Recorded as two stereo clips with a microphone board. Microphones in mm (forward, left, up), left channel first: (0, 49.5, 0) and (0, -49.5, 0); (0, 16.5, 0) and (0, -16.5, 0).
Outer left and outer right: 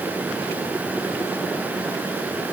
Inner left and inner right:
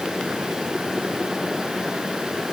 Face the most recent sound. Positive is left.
No sound to turn to.